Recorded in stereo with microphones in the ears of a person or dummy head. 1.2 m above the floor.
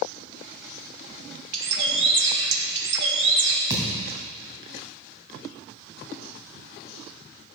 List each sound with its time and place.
1.5 s a bird: 65° right (ahead or behind), 1.5 m
3.7 s a thud: 20° right (ahead or behind), 2.5 m